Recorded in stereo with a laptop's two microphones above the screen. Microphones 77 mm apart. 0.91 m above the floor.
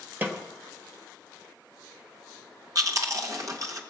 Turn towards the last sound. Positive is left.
turn(degrees=-45)  # may be behind; listen again after turning